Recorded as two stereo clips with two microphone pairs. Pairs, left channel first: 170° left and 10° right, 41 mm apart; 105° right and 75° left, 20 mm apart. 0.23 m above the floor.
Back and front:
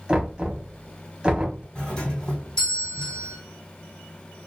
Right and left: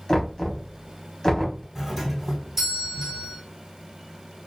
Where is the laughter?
No laughter in this recording.